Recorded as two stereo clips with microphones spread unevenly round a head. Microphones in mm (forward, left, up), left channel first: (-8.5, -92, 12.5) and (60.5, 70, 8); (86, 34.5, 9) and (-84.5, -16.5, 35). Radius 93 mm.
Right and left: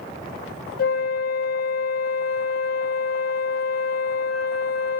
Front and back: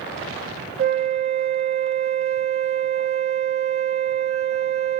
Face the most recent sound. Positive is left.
turn(degrees=-125)